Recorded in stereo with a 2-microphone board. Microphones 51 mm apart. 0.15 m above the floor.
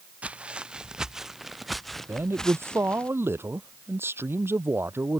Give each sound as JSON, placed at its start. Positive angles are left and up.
{"t": 0.2, "sound": "footsteps", "side_deg": -25}
{"t": 2.1, "sound": "a man speaking", "side_deg": -50}